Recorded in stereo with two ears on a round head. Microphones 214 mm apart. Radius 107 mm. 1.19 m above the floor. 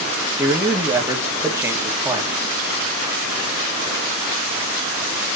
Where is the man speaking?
10° right (ahead or behind), 2.5 m.